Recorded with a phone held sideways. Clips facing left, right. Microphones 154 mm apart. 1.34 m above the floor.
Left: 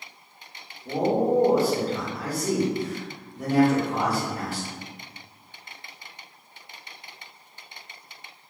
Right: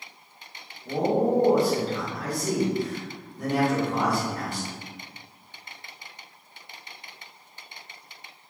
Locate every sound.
0.8 s a man speaking: 5° left (ahead or behind), 1.0 m